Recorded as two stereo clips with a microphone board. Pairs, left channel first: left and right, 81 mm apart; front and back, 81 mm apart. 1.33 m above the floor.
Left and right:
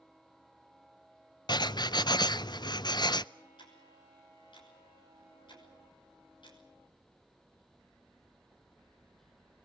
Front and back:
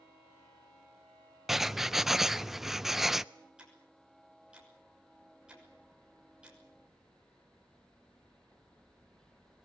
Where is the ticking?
100° left, 6 m.